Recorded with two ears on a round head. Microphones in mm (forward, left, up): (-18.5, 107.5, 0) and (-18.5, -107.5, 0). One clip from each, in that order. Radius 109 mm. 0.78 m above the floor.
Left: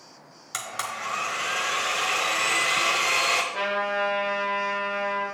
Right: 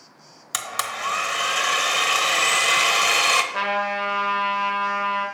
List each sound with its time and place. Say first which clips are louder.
0.5 s a blender: right 4 dB; 30° right (ahead or behind), 0.9 m
3.5 s a trumpet: right 2 dB; 35° right (ahead or behind), 1.8 m